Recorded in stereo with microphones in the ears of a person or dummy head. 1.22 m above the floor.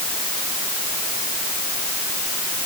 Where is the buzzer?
No buzzer in this recording.